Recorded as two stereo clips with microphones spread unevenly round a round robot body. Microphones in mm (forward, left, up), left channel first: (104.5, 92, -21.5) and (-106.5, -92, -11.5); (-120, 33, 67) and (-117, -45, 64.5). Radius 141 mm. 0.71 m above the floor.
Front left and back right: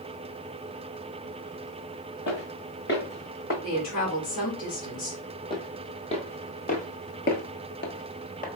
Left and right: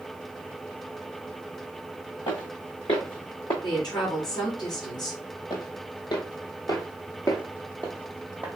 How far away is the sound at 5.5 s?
About 1.4 m.